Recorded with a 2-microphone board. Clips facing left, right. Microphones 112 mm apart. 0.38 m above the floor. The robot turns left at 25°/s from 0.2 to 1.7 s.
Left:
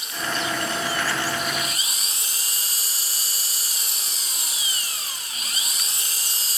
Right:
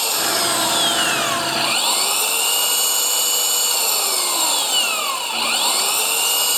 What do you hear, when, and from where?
0.0 s an engine running: 75° right; by 6.6 s 115° right